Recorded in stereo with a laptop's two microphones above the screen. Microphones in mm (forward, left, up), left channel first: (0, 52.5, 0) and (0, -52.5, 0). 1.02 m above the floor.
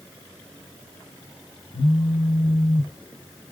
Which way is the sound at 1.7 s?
50° left (ahead or behind).